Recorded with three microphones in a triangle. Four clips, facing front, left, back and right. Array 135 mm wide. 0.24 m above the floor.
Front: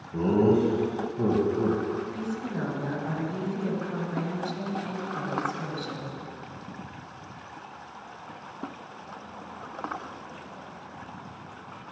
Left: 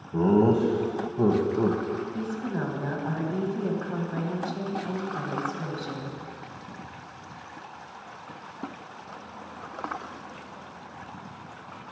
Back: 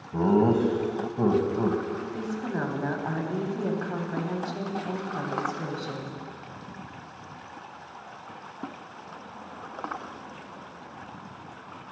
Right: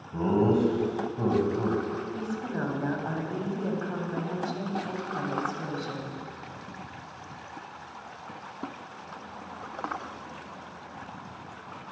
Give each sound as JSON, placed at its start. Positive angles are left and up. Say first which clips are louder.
{"t": 0.1, "sound": "laughter", "louder": "left 3 dB, even", "azimuth_deg": 155, "distance_m": 1.4}
{"t": 2.1, "sound": "a woman speaking", "louder": "left 2 dB, back 1 dB", "azimuth_deg": 180, "distance_m": 1.2}